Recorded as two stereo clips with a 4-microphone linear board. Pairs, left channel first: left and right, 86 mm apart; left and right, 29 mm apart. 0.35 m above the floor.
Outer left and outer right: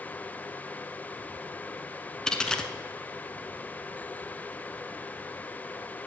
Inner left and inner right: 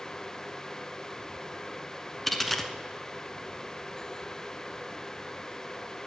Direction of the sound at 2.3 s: 10° left (ahead or behind).